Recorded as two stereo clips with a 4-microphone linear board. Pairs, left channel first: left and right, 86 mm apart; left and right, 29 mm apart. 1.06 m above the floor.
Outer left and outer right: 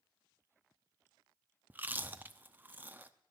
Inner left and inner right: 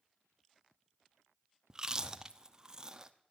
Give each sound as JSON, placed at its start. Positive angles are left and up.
{"t": 1.7, "sound": "chewing", "side_deg": -20, "distance_m": 0.6}